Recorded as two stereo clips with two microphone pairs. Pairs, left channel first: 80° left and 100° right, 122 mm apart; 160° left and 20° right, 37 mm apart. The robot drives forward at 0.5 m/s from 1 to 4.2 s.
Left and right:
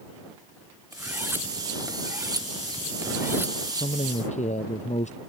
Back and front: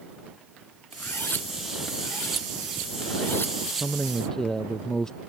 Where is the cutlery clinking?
175° right.